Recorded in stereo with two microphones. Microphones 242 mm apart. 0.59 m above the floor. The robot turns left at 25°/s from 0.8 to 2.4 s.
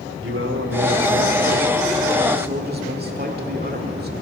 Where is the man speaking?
90° right, 1.8 m; by 4.1 s 130° right, 1.8 m.